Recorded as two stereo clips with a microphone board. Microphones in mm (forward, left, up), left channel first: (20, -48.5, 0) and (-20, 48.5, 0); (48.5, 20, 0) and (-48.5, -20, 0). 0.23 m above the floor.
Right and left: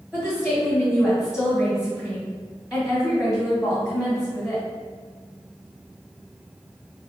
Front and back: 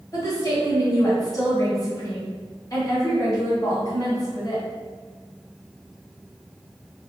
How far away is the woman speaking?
About 1.7 m.